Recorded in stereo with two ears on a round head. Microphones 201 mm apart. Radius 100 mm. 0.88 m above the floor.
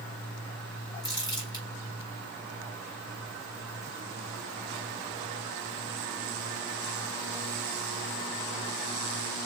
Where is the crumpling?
20° left (ahead or behind), 3.5 m.